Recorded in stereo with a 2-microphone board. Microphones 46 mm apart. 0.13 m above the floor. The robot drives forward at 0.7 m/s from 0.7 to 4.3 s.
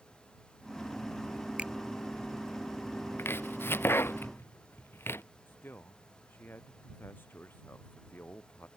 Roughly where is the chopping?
Left.